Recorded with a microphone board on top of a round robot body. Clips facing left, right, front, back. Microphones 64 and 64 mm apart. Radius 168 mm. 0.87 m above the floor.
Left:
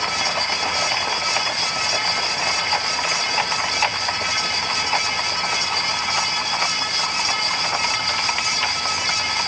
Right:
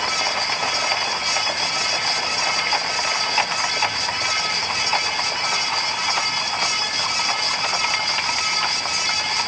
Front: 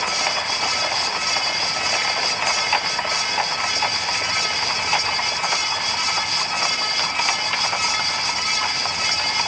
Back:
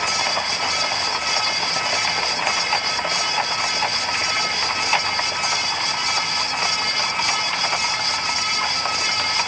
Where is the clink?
No clink in this recording.